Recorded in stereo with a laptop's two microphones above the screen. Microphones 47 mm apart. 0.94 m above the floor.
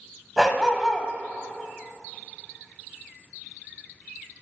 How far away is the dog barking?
About 1.1 m.